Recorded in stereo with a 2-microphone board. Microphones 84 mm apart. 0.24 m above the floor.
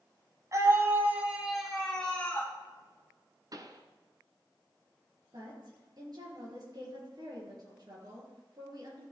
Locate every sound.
0.5 s a scream: 40° right (ahead or behind), 2 m; by 2.5 s 20° left (ahead or behind), 3 m
3.5 s a pop: 50° right (ahead or behind), 1.0 m
5.3 s a woman speaking: 55° right (ahead or behind), 4.5 m